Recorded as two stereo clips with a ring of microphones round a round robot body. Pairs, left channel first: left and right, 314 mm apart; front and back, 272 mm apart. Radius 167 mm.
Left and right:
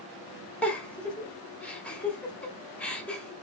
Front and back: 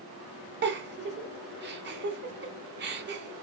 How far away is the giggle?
About 1.0 m.